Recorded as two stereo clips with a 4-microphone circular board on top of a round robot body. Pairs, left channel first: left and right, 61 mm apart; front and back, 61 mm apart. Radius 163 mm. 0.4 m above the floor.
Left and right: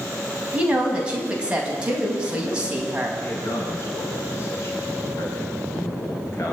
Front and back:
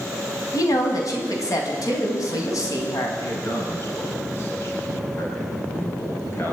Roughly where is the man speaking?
Ahead left.